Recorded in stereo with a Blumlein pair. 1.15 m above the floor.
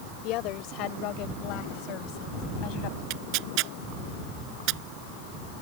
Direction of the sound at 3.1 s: 40° right.